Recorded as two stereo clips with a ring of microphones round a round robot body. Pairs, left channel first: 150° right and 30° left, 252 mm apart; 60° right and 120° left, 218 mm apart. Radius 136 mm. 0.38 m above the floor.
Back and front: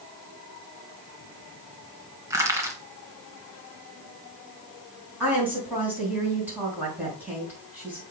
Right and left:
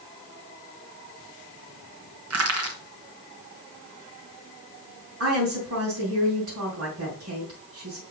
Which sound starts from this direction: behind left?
A woman speaking, at 5.2 s.